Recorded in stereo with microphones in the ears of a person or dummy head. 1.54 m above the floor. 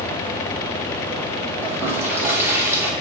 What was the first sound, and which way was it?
A toilet flushing, 10° right (ahead or behind).